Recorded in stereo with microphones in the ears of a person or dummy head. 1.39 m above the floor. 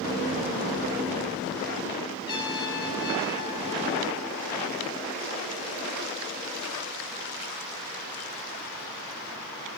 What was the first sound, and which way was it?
A trumpet, 25° left (ahead or behind).